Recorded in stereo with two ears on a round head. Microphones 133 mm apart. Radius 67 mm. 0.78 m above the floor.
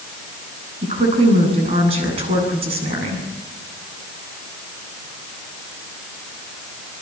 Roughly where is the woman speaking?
Right.